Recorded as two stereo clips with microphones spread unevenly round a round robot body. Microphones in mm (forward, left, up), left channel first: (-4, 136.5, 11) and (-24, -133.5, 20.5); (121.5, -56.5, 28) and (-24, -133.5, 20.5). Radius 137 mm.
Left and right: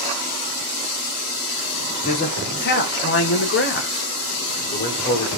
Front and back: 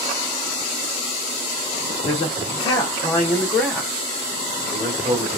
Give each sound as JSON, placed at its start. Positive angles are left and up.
{"t": 2.0, "sound": "a man speaking", "azimuth_deg": 55, "distance_m": 1.1}